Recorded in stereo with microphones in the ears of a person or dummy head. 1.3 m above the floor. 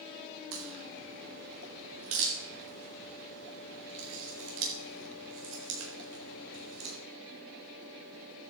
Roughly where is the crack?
Right.